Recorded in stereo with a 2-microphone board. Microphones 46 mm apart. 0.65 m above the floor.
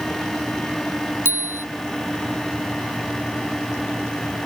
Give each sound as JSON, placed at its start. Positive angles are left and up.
{"t": 1.2, "sound": "a bicycle bell", "side_deg": -60}